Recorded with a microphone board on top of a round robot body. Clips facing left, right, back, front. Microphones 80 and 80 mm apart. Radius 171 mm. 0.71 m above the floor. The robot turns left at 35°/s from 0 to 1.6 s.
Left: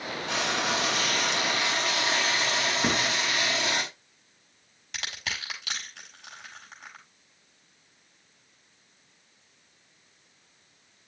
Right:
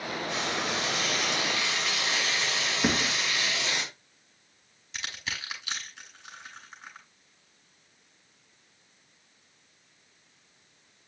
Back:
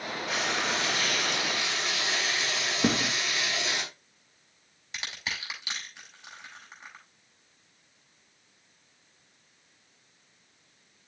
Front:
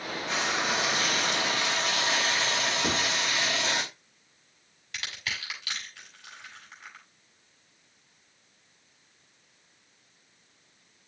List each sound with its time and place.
0.3 s frying: 95° left, 4 m; by 3.8 s 50° left, 4 m
2.8 s a thud: 175° right, 2.5 m
4.9 s crushing: 115° left, 6.5 m